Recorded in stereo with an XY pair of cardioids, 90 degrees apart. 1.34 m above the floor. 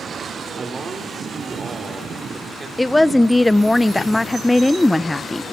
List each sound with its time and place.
0.6 s a man speaking: 30° right, 3 m
2.8 s a woman speaking: 15° left, 0.8 m